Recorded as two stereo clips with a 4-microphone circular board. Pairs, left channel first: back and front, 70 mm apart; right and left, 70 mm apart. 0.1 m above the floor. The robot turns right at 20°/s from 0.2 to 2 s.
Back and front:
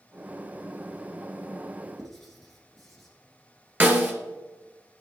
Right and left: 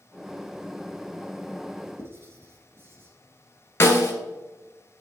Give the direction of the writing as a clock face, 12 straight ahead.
9 o'clock.